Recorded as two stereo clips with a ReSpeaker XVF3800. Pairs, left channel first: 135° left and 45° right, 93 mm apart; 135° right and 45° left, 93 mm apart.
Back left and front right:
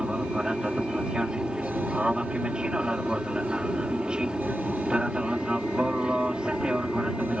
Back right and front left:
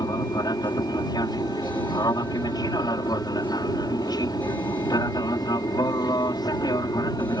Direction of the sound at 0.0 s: 120° right.